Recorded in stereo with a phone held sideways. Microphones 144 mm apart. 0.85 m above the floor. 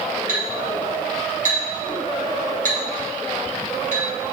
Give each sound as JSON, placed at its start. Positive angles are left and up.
{"t": 0.3, "sound": "a clink", "side_deg": -65, "distance_m": 3.5}